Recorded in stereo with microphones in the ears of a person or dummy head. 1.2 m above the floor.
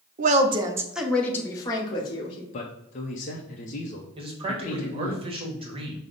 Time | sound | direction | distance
0.2 | a woman speaking | 40° right (ahead or behind) | 0.5 m
2.5 | a man speaking | 40° left (ahead or behind) | 0.5 m
4.2 | a man speaking | 30° right (ahead or behind) | 1.0 m